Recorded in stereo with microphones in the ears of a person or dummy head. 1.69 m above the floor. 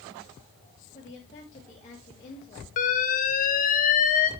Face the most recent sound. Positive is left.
turn(degrees=35)  # may be behind; listen again after turning